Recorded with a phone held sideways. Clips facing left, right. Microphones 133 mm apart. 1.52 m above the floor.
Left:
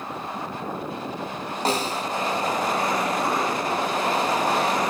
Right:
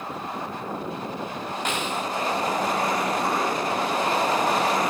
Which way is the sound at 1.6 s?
35° left (ahead or behind).